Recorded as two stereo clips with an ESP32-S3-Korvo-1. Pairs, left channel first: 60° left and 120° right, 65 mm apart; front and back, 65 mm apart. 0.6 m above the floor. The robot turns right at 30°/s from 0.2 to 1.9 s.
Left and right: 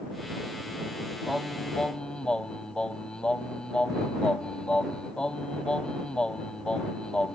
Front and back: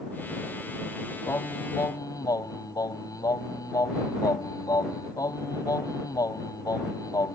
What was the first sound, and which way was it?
Singing, 35° right.